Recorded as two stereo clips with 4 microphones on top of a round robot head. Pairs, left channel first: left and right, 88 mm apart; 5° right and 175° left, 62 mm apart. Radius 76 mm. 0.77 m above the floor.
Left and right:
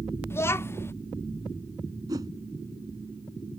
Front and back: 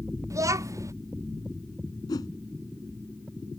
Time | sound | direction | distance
0.3 | a child speaking | 150° left | ?
2.1 | a whoosh | 35° right | ?